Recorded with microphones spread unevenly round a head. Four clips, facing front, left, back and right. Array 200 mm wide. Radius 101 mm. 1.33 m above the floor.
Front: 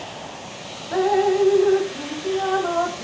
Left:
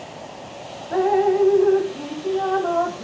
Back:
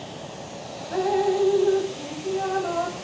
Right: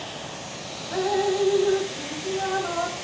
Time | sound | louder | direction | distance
0.9 | dripping | left 6 dB, front 4 dB | 65° left | 1.2 m